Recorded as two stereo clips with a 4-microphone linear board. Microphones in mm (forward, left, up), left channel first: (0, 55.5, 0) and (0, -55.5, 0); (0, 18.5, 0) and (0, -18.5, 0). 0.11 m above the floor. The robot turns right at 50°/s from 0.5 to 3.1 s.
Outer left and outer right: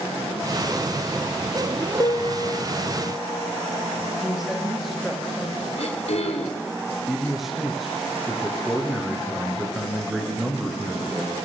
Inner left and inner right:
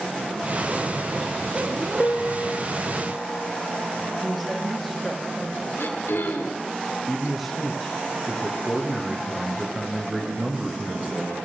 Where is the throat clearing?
70° left (ahead or behind), 7.5 m.